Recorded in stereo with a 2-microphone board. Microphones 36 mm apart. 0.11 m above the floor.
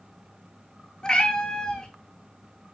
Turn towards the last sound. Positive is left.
turn(degrees=20)  # may be behind; listen again after turning